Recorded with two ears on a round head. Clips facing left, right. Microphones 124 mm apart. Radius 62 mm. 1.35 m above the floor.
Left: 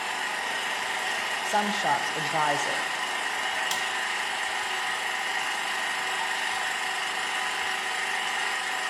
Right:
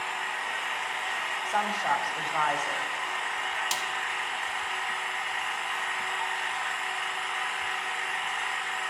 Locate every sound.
0.0 s an engine running: 45° left (ahead or behind), 0.7 m
1.4 s a woman speaking: 35° left (ahead or behind), 0.7 m
3.7 s a snare drum: 5° right (ahead or behind), 0.8 m